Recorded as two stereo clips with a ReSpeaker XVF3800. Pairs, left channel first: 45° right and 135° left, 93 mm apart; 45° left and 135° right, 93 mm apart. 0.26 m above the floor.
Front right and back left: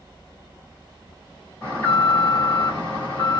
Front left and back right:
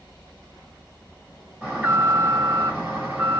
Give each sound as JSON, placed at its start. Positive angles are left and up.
{"t": 1.6, "sound": "an alarm", "azimuth_deg": -80, "distance_m": 1.8}